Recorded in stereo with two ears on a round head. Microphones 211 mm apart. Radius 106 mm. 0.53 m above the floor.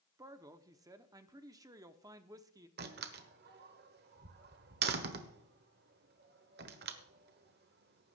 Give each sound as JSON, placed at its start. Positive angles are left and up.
{"t": 0.2, "sound": "a man speaking", "side_deg": -15, "distance_m": 0.8}
{"t": 2.8, "sound": "a door slam", "side_deg": -45, "distance_m": 1.2}